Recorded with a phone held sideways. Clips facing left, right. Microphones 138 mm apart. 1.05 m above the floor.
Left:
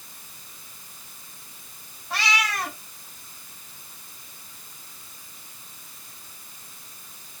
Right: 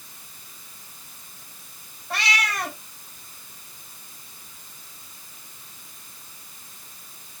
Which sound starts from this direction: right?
A cat meowing, at 2.1 s.